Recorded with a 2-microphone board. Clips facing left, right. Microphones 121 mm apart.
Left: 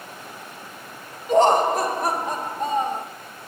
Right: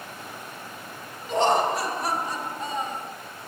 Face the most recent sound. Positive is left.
turn(degrees=55)  # may be behind; listen again after turning